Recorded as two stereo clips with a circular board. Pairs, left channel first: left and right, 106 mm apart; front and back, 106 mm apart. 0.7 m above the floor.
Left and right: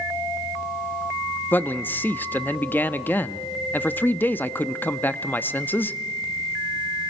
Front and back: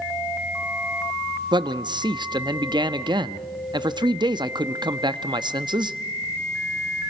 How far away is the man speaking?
About 0.6 m.